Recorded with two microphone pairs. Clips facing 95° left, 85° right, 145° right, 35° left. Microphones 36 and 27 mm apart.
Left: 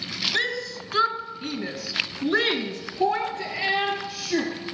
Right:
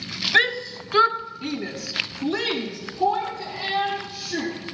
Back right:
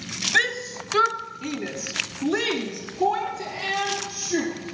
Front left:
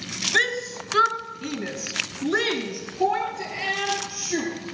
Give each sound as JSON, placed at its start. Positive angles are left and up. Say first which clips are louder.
{"t": 0.3, "sound": "a shout", "louder": "right 10 dB, even", "azimuth_deg": -55, "distance_m": 1.3}